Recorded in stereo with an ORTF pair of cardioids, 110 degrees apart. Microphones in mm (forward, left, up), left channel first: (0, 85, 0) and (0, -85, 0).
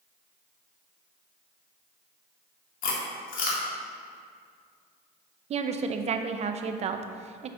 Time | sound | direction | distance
2.8 | chewing | 60° left | 2 m
5.5 | a woman speaking | 40° right | 0.7 m